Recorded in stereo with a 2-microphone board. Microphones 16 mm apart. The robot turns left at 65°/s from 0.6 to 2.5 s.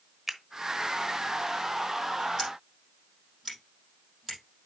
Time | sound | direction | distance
0.3 | a finger snap | 20° right (ahead or behind) | 1.1 m
2.4 | scissors | 15° left (ahead or behind) | 5 m